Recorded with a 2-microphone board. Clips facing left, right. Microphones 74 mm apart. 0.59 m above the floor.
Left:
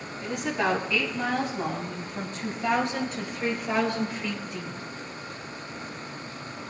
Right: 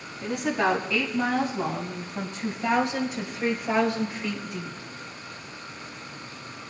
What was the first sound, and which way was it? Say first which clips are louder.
A woman speaking: right 2 dB; 5° right (ahead or behind).